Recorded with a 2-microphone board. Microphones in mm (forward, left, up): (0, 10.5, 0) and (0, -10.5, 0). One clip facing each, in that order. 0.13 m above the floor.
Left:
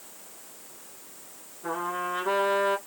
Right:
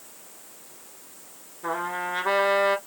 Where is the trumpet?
40° right (ahead or behind), 3.5 m.